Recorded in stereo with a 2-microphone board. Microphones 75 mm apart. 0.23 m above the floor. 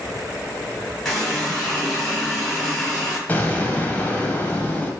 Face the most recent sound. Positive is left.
turn(degrees=20)  # may be behind; listen again after turning